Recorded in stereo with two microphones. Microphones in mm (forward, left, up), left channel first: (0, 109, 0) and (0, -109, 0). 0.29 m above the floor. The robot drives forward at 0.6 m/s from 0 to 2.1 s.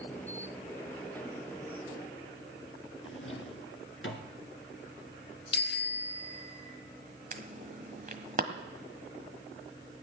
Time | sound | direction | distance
3.0 | a drawer | 75° left (ahead or behind) | 1.6 m
5.5 | a bicycle bell | 50° left (ahead or behind) | 2 m
7.3 | an alarm | 40° right (ahead or behind) | 1.4 m